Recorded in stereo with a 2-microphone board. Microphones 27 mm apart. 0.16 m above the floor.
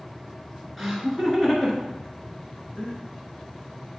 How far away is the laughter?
About 2.5 m.